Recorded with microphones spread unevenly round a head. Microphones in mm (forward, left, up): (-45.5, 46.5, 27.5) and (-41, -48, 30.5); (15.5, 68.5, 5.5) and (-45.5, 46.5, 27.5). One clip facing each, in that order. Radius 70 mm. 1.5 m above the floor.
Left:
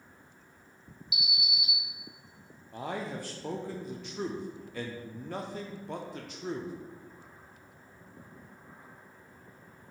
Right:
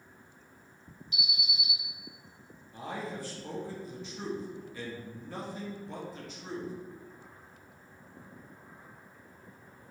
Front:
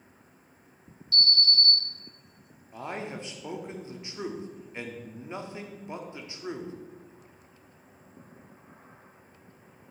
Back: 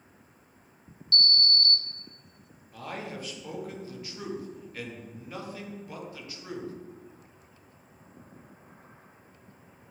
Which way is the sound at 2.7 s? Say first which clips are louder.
Left 2 dB, front 2 dB; 75° left.